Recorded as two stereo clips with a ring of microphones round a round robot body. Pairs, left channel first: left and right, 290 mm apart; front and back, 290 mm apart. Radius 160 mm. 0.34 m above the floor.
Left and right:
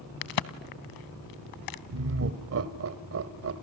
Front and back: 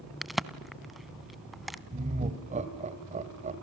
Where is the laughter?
115° right, 1.6 m.